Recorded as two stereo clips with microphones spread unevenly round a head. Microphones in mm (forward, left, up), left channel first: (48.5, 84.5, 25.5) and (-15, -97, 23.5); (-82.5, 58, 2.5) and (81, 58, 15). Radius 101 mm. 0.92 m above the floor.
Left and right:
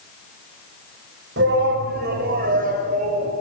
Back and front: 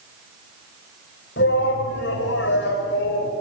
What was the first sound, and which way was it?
A shout, 145° right.